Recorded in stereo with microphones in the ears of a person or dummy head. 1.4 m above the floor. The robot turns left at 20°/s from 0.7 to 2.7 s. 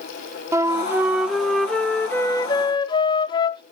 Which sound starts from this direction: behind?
A flute, at 0.5 s.